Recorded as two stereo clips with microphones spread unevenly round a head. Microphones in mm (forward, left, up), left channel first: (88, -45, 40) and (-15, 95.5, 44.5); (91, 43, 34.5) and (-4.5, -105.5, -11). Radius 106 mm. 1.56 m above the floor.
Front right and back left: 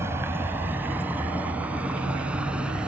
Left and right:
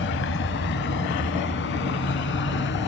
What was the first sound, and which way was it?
A vehicle, 50° left.